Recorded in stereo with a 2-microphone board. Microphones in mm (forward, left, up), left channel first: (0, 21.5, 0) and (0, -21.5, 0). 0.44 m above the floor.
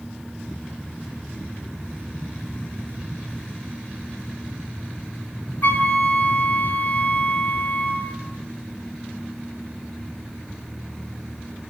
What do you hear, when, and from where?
5.6 s a flute: 45° left (ahead or behind), 1.2 m